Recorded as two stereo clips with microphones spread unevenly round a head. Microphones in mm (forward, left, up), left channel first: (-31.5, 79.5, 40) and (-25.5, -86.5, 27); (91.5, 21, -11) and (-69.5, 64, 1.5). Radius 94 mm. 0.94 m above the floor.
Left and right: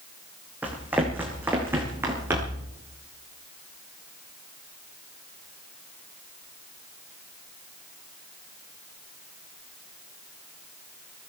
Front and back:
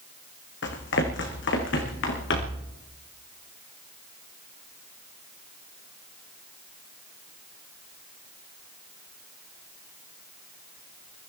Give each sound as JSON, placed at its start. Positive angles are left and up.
{"t": 0.6, "sound": "running footsteps", "azimuth_deg": -5, "distance_m": 2.5}